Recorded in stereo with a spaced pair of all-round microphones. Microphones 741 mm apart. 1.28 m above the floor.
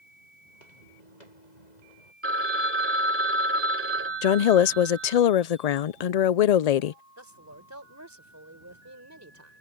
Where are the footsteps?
70° left (ahead or behind); by 2.1 s 65° left (ahead or behind).